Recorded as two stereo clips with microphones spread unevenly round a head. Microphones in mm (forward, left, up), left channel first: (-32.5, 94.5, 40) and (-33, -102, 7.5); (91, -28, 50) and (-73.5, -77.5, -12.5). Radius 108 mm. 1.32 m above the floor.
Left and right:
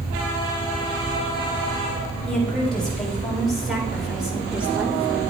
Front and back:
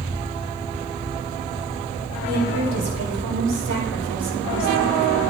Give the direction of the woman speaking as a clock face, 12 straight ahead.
6 o'clock.